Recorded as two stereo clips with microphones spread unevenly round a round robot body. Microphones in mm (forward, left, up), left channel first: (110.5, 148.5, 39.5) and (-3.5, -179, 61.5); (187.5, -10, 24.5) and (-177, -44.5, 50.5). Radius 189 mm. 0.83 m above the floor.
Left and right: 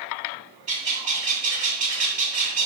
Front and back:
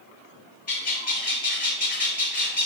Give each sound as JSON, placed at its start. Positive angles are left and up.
{"t": 0.7, "sound": "a bird", "azimuth_deg": -60, "distance_m": 2.5}